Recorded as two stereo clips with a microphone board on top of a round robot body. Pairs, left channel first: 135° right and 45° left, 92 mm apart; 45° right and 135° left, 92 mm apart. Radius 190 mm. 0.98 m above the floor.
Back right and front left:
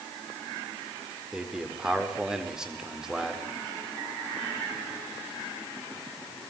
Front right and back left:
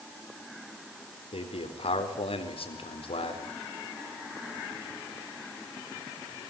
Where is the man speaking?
35° right, 4.5 m.